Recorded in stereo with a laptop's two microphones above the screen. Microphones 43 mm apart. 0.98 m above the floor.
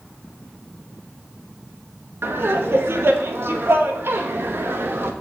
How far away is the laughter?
About 1.3 m.